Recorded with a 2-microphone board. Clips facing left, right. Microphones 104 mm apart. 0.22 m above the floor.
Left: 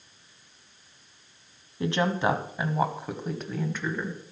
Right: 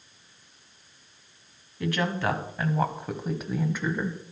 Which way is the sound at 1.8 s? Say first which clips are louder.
Left 2 dB; 25° left (ahead or behind).